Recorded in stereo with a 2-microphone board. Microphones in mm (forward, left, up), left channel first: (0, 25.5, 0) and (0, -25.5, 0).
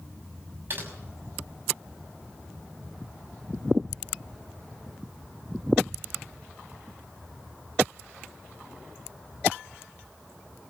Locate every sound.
0.7 s typing on a keyboard: 45° right (ahead or behind), 6 m